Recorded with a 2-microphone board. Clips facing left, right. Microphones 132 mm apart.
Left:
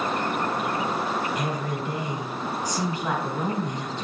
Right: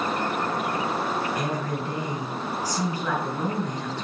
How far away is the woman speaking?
About 4 m.